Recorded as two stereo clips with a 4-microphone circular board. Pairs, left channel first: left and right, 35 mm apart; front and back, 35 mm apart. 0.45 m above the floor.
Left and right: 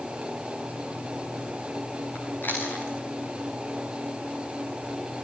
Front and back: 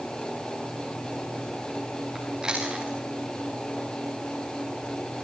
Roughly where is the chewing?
Left.